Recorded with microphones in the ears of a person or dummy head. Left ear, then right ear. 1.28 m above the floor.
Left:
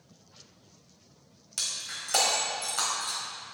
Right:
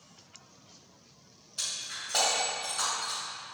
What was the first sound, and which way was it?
Breaking glass, 60° left (ahead or behind).